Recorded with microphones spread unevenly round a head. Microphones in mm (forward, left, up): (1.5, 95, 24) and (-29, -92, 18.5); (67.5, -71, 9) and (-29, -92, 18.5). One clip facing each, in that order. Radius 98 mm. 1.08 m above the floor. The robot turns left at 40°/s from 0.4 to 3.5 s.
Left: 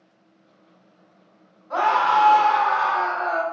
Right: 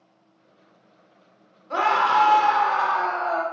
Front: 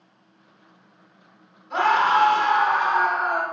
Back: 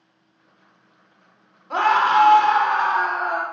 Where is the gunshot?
No gunshot in this recording.